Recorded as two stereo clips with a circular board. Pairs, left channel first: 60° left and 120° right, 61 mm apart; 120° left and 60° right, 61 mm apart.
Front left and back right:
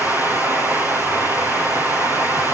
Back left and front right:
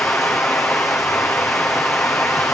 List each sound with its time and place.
0.0 s running water: straight behind, 4 m